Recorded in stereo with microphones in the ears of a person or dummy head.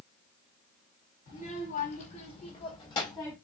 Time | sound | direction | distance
1.3 | a child speaking | 55° left (ahead or behind) | 1.6 m